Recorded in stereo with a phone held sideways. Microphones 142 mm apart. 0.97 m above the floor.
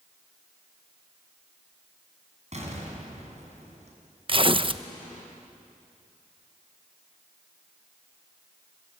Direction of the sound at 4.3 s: 40° right (ahead or behind).